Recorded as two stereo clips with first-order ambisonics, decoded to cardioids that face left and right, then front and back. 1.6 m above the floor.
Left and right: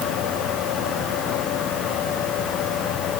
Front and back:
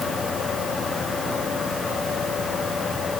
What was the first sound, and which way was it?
Only background noise.